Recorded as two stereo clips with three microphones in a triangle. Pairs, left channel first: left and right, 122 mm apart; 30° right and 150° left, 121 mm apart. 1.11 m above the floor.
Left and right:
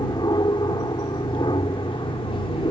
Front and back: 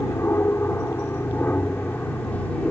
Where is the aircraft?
40° left; by 2.7 s 50° left.